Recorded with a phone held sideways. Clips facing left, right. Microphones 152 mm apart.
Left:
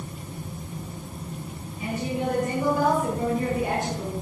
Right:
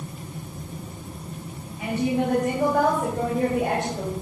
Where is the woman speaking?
70° right (ahead or behind), 5.5 m; by 4.1 s 60° right (ahead or behind), 4 m.